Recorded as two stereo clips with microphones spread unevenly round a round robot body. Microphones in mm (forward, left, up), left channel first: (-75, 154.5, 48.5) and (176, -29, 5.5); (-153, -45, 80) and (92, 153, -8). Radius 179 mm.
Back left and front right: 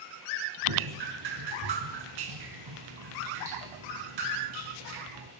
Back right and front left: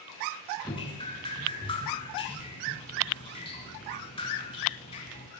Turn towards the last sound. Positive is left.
turn(degrees=-70)